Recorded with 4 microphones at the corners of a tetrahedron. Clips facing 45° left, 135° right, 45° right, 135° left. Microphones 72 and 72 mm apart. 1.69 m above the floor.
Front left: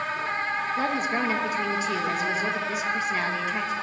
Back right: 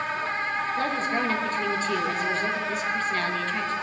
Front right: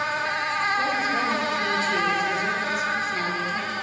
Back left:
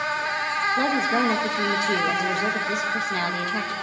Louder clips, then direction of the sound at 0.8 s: Front left 1 dB, back left 2 dB; 125° left.